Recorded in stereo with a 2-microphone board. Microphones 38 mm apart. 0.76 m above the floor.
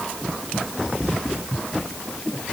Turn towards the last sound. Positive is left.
No sound to turn to.